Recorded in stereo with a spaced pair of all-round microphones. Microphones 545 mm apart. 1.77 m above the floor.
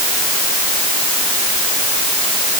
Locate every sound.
Only background noise.